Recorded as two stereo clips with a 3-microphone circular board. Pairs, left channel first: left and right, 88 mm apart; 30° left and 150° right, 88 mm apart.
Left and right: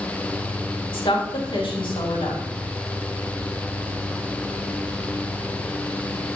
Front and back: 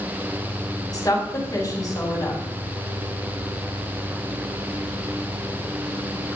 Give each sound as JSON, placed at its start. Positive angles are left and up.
{"t": 0.9, "sound": "a woman speaking", "azimuth_deg": 75, "distance_m": 5.0}